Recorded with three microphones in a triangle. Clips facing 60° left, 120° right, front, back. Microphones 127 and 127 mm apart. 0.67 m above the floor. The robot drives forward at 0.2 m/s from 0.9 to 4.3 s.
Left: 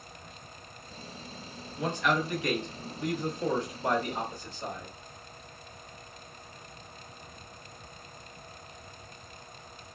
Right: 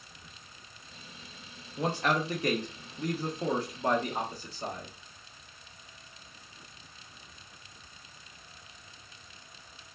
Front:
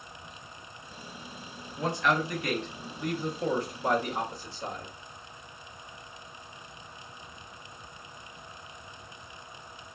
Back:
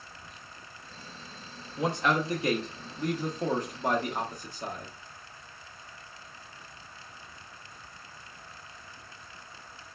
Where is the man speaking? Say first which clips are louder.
Even, even; 130° right, 0.6 m; by 4.9 s 160° right, 0.9 m.